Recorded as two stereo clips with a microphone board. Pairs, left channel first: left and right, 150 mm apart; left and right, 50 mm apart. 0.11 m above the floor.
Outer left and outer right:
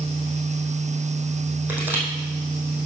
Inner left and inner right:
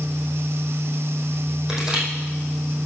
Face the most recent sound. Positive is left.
turn(degrees=-10)  # may be behind; listen again after turning